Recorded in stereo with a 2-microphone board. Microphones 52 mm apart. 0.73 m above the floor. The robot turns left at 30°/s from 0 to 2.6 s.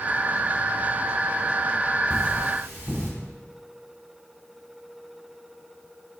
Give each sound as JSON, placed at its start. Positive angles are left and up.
{"t": 2.1, "sound": "cutlery clinking", "side_deg": -30, "distance_m": 2.5}